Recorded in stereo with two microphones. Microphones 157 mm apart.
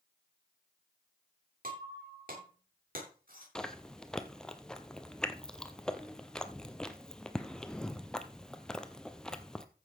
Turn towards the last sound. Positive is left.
turn(degrees=5)  # may be behind; listen again after turning